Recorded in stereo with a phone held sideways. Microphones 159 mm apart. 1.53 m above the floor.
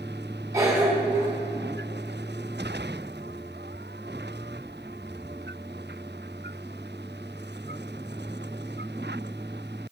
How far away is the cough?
About 2 m.